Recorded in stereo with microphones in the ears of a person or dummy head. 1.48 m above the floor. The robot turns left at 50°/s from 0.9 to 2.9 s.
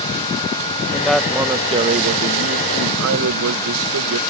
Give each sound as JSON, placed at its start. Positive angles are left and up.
{"t": 0.9, "sound": "a man speaking", "azimuth_deg": 10}